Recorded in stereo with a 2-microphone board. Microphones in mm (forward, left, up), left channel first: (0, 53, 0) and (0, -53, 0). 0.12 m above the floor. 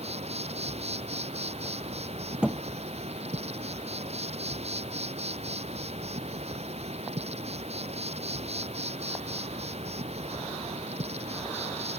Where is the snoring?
I don't hear snoring.